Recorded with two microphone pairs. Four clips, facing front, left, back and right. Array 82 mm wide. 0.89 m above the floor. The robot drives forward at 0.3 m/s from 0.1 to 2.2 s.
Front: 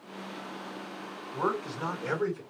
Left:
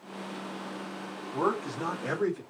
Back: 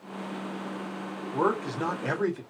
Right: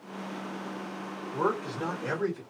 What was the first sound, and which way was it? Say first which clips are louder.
A man speaking: even, back 4 dB; 175° left.